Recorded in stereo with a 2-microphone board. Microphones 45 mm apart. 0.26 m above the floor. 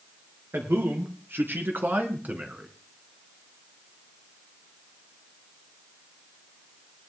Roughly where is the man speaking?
Right.